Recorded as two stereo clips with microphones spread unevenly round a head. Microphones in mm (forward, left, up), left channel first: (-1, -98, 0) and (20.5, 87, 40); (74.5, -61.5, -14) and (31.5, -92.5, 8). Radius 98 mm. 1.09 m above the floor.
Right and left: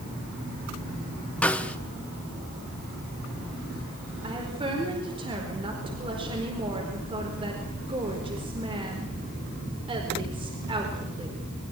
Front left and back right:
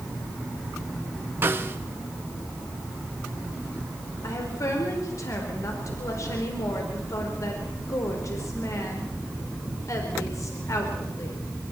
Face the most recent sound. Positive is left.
turn(degrees=20)